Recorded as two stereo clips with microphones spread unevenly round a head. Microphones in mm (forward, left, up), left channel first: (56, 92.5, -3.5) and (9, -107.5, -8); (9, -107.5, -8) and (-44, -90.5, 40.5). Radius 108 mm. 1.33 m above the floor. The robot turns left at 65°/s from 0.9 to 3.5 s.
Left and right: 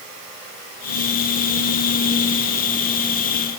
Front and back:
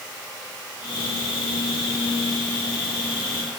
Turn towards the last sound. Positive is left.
No sound to turn to.